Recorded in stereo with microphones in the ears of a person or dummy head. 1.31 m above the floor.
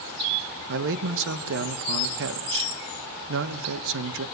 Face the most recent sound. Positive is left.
turn(degrees=-60)  # may be behind; listen again after turning